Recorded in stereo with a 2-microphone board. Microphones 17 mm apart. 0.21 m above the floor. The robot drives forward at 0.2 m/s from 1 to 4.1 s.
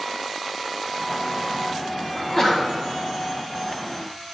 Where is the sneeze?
25° left (ahead or behind), 1.1 m.